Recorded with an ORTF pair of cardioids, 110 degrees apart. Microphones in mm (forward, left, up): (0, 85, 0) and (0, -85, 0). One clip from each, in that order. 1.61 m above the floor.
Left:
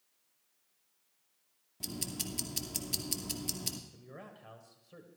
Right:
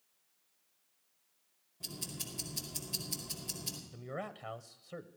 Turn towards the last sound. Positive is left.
turn(degrees=-45)